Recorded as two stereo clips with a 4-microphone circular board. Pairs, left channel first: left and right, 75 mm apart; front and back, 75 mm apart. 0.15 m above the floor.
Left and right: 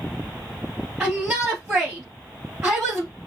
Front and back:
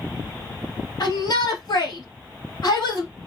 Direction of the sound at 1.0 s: 30° right.